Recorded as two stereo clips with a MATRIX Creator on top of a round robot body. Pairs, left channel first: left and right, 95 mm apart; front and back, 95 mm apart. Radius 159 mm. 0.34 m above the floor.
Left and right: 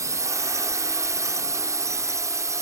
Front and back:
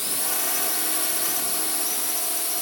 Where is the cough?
I don't hear a cough.